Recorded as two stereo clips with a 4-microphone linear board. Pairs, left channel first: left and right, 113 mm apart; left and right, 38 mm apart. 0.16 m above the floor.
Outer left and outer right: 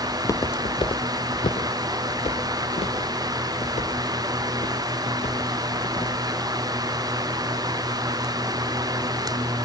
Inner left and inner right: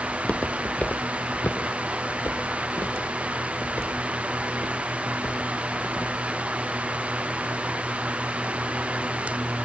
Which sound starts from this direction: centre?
Footsteps, at 0.1 s.